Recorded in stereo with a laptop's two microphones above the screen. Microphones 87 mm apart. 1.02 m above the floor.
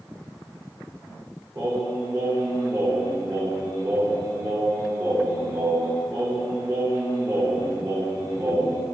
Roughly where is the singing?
Right.